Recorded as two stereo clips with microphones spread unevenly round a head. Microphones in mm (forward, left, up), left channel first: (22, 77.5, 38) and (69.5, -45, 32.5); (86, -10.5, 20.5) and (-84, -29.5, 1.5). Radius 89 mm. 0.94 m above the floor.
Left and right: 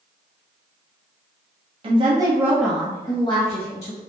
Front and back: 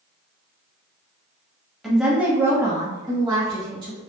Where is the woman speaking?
90° right, 1.0 m; by 4.0 s 130° left, 1.3 m.